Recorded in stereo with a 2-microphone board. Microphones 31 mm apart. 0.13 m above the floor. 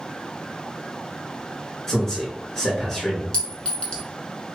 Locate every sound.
1.9 s a man speaking: 15° left (ahead or behind), 1.6 m
3.3 s a clink: 30° left (ahead or behind), 0.8 m